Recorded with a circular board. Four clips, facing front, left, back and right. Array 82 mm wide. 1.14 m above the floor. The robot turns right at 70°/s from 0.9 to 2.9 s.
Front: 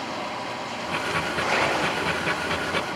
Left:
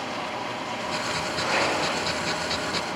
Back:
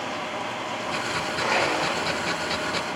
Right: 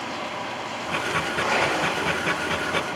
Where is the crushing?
160° right, 3 m; by 2.0 s 120° right, 3 m.